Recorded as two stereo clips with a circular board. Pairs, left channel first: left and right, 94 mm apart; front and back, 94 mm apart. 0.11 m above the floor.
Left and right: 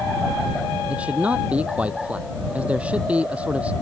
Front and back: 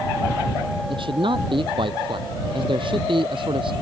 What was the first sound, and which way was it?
A man speaking, 165° right.